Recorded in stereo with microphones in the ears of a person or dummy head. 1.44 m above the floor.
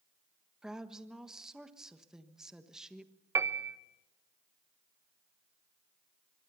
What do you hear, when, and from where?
0.6 s a woman speaking: centre (ahead or behind), 1.5 m
3.4 s a piano: 15° right (ahead or behind), 1.0 m